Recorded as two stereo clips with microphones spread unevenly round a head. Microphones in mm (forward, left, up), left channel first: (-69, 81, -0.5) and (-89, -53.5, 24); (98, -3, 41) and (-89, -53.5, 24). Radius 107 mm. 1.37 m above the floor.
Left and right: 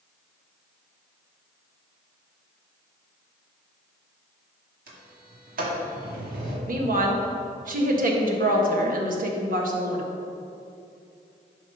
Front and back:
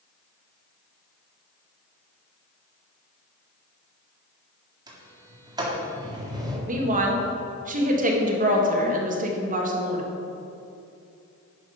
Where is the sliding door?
95° right, 2.0 m.